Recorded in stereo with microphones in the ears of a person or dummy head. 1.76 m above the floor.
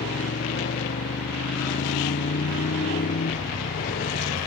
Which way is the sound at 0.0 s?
45° left (ahead or behind).